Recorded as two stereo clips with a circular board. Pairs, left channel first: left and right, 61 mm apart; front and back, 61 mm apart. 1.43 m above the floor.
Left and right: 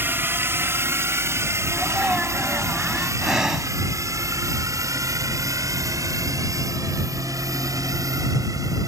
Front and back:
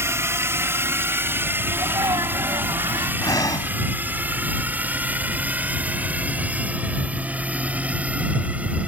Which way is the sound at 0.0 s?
140° right.